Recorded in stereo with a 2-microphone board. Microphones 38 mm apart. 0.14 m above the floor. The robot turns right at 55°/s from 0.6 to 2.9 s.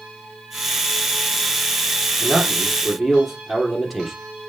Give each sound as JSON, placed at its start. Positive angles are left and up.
{"t": 2.2, "sound": "a man speaking", "azimuth_deg": -45, "distance_m": 3.0}